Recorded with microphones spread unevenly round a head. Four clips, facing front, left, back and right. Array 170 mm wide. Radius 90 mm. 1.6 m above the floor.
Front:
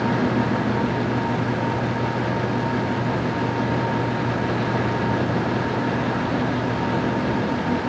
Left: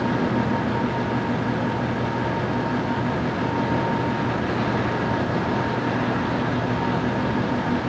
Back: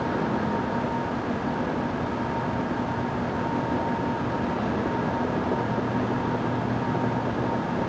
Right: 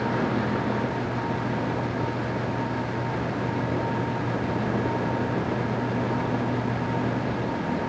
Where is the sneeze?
I don't hear a sneeze.